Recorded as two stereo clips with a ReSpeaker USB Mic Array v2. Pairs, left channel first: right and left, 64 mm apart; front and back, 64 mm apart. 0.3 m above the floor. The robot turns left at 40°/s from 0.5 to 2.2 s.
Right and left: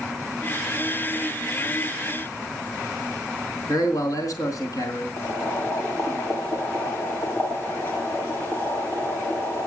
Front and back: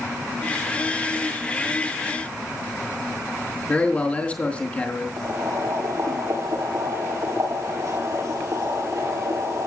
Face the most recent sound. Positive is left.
turn(degrees=-150)